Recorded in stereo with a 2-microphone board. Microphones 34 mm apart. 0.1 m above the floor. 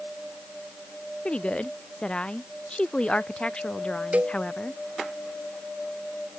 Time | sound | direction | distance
1.2 | a woman speaking | 30° left (ahead or behind) | ?
4.1 | a cowbell | 40° right (ahead or behind) | ?